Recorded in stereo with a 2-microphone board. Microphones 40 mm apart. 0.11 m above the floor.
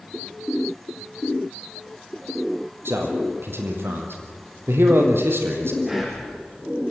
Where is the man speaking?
70° right (ahead or behind), 3.5 m.